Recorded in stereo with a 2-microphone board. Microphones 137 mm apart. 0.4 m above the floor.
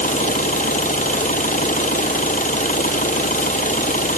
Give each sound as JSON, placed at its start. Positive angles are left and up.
{"t": 0.0, "sound": "an engine running", "side_deg": 75}